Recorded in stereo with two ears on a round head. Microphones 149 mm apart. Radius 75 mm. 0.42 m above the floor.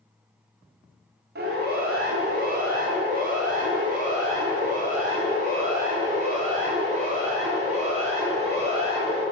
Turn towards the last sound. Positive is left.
turn(degrees=-35)  # may be behind; listen again after turning